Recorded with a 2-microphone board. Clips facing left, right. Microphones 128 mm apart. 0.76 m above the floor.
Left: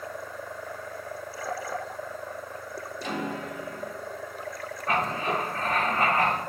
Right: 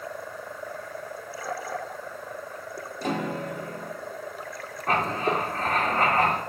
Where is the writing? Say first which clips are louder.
Right 2 dB; 40° right (ahead or behind), 1.8 m.